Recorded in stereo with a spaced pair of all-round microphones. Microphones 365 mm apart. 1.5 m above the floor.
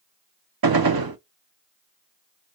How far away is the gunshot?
About 0.6 m.